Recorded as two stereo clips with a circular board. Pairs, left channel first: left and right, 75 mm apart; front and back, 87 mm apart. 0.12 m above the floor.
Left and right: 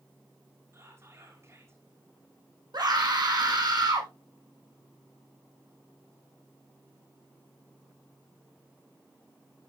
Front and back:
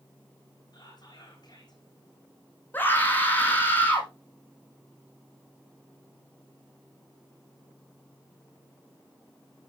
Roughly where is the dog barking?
I don't hear a dog barking.